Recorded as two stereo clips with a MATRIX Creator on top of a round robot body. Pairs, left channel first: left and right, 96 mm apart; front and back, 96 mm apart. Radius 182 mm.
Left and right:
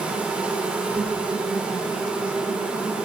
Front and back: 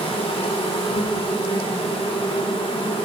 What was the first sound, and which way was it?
An insect, 15° right.